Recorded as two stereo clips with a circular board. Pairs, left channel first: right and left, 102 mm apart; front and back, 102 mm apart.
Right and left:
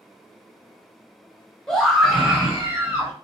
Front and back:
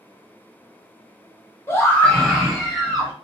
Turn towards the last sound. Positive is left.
turn(degrees=135)